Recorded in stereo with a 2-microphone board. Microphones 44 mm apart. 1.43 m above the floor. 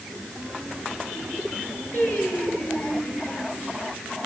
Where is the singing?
55° left (ahead or behind), 9.5 m.